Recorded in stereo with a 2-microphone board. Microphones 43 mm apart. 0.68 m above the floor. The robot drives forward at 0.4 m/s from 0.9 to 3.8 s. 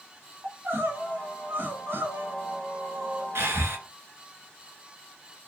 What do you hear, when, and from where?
0.4 s crying: 60° right (ahead or behind), 4 m; by 3.2 s 70° right (ahead or behind), 4 m
3.4 s breathing: 80° right, 2 m; by 3.8 s 75° right (ahead or behind), 2 m